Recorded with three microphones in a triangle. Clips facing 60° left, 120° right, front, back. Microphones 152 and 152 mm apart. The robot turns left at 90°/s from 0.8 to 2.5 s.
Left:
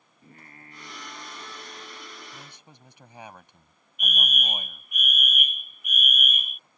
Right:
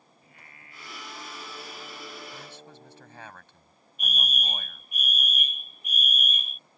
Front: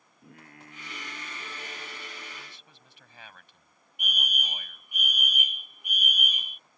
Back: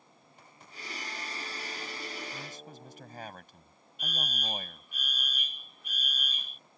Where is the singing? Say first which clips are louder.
Left 8 dB, front 9 dB; 10° left; by 3.3 s 145° right.